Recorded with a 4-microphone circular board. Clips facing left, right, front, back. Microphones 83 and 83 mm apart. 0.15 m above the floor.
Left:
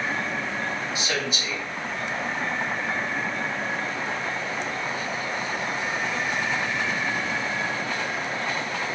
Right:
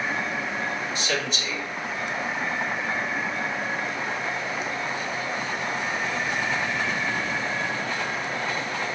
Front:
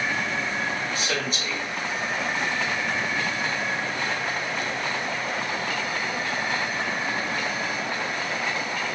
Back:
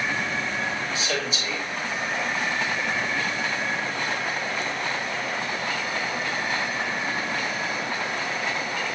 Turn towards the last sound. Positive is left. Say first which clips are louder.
# even, even
turn(degrees=10)